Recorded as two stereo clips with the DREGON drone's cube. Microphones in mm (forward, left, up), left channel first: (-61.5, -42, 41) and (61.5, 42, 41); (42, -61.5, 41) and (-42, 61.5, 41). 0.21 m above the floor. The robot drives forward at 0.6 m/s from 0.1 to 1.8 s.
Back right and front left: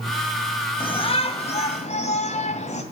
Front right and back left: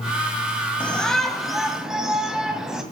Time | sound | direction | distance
0.8 | a shout | 135° right | 1.7 m